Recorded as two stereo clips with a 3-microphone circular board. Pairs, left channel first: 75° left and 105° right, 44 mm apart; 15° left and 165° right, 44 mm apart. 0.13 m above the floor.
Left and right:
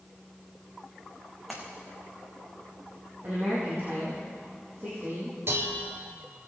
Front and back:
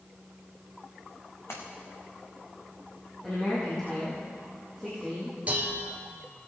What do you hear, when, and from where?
1.5 s a splash: 15° right, 2.5 m
3.2 s a woman speaking: 65° right, 5 m
5.5 s dishes clattering: 110° right, 1.8 m